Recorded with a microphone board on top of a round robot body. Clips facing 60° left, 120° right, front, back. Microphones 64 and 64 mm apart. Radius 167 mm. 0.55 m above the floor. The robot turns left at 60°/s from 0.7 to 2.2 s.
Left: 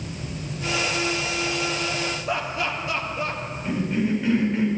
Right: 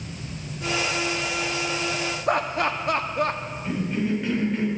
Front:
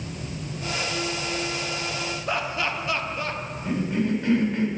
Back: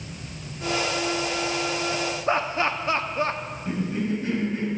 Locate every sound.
2.3 s laughter: 130° right, 1.6 m
3.6 s a cough: 30° right, 4.5 m